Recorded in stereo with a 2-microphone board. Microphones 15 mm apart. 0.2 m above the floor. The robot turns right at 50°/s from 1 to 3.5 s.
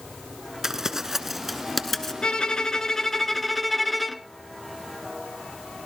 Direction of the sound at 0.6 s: 30° right (ahead or behind).